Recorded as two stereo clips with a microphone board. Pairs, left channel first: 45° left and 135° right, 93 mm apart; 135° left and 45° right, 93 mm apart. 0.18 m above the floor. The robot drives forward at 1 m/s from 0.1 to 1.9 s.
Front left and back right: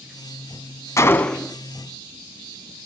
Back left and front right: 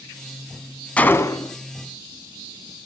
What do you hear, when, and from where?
1.0 s a gunshot: 70° left, 0.7 m; by 1.6 s 140° left, 0.8 m